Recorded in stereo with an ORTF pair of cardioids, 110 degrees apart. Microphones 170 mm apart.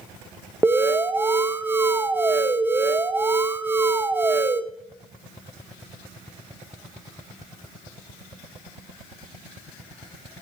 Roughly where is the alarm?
Ahead.